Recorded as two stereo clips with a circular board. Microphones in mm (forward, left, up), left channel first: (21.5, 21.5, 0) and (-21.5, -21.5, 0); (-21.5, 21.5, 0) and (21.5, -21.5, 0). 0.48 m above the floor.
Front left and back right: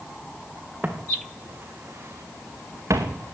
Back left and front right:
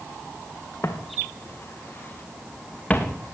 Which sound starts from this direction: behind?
Footsteps, at 0.8 s.